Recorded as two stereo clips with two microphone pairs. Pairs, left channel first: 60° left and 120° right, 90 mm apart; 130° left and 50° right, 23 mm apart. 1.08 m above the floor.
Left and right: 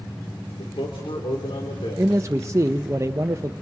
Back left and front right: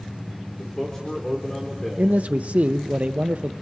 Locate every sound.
0.6 s a man speaking: 65° left, 3.5 m
2.0 s a man speaking: 65° right, 0.6 m